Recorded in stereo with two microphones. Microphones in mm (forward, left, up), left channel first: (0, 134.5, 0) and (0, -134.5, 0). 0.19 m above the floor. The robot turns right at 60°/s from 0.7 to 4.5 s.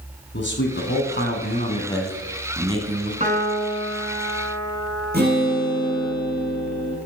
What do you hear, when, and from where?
0.3 s a man speaking: 85° left, 1.4 m; by 3.1 s 135° right, 1.4 m
3.2 s a piano: 145° right, 1.0 m; by 6.1 s 70° right, 1.0 m
5.1 s a guitar: 35° right (ahead or behind), 3 m